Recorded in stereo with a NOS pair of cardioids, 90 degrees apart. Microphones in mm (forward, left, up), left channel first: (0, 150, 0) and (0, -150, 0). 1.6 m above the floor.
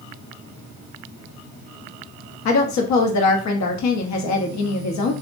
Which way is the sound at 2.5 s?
65° left.